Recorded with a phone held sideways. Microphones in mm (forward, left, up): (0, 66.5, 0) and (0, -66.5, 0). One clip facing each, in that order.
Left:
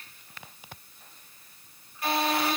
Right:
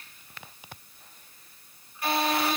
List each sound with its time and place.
Only background noise.